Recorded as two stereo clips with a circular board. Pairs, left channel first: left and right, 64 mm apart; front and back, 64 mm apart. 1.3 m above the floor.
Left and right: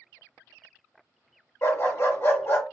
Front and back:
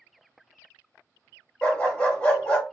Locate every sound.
1.6 s a dog barking: 70° left, 1.4 m